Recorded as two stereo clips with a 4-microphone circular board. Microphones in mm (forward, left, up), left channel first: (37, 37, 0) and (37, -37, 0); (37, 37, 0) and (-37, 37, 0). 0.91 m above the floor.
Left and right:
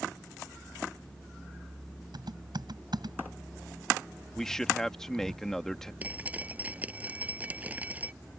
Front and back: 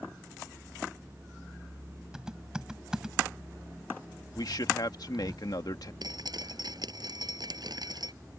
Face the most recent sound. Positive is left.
turn(degrees=-160)